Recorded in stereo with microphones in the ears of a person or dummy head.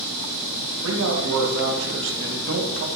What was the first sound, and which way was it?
A man speaking, 75° right (ahead or behind).